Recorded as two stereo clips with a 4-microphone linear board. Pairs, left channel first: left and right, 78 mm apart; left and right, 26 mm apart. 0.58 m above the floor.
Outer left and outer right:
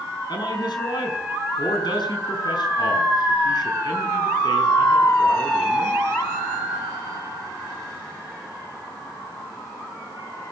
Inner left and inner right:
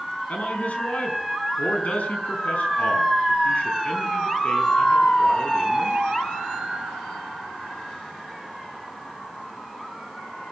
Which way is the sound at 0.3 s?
65° left (ahead or behind).